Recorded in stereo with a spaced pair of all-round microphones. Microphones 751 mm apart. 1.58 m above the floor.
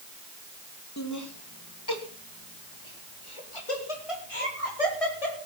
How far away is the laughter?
About 2.5 m.